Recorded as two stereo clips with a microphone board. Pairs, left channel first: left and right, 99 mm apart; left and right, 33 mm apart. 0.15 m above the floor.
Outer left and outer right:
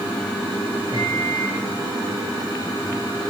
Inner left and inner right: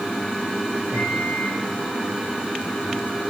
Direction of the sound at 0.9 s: 55° right (ahead or behind).